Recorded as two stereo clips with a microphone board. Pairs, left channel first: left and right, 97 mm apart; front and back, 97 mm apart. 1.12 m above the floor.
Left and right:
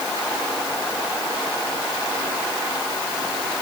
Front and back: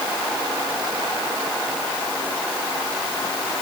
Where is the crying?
No crying in this recording.